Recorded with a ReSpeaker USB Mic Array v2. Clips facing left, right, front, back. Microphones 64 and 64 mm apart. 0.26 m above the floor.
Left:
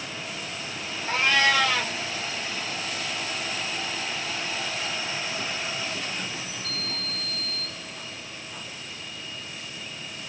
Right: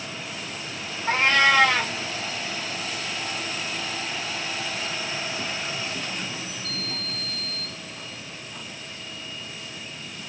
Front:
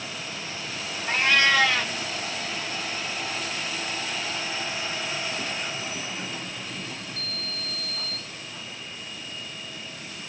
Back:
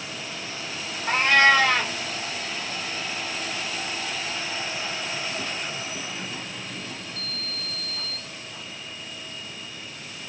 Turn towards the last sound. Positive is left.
turn(degrees=-135)